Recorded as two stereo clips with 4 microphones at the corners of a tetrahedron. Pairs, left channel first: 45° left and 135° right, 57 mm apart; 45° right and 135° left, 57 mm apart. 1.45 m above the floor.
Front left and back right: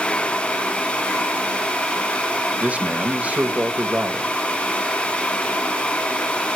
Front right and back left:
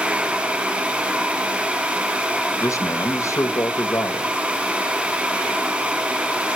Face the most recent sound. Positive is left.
turn(degrees=-70)